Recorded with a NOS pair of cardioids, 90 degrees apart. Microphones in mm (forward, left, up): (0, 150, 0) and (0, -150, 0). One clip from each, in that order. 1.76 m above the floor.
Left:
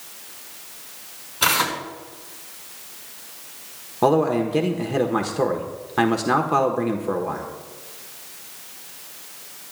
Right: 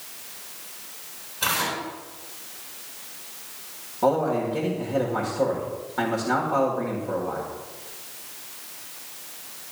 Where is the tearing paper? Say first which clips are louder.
Left 5 dB; 65° left, 5 m.